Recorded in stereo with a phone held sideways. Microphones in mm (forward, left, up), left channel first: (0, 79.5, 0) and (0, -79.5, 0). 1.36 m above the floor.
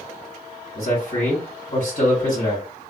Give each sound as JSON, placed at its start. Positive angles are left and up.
{"t": 0.8, "sound": "a man speaking", "side_deg": 60, "distance_m": 2.0}